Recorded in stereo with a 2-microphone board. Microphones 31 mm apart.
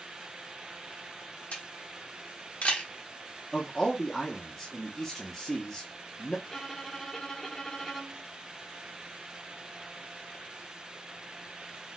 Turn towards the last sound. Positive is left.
turn(degrees=5)  # may be behind; listen again after turning